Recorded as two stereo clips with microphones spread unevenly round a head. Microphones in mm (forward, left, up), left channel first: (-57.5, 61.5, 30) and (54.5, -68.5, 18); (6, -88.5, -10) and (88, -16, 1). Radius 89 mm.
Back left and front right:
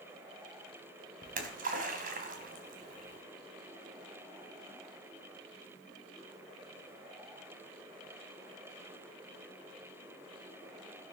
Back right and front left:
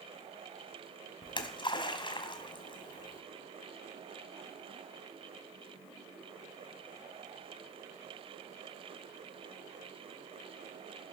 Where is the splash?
95° right, 2.5 m.